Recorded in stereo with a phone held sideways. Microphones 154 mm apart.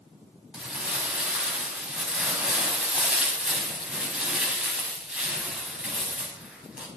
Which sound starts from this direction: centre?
Crumpling, at 0.5 s.